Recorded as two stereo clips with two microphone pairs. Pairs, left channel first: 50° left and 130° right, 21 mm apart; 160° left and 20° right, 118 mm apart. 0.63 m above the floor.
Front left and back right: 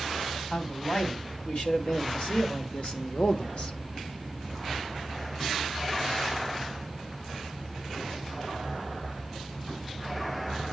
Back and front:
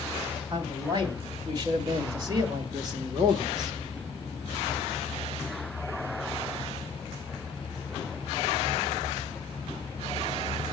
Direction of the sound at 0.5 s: 30° left.